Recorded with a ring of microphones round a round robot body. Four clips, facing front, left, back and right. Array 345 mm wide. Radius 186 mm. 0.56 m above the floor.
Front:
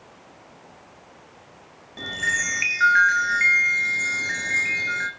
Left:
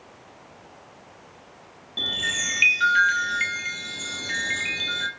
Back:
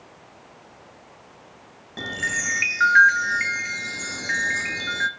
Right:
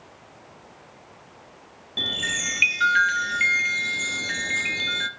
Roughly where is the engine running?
I don't hear an engine running.